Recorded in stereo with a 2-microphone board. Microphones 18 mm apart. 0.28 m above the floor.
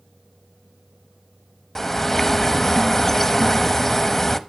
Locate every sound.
1.8 s a bird: 20° left (ahead or behind), 0.6 m